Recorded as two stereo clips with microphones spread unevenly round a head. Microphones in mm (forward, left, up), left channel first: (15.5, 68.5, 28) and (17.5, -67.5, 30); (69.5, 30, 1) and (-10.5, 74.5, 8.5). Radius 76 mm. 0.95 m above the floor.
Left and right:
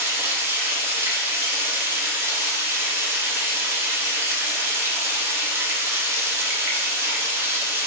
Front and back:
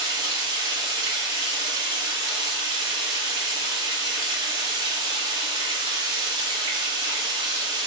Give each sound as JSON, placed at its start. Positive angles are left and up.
{"t": 0.0, "sound": "running water", "azimuth_deg": -160, "distance_m": 0.8}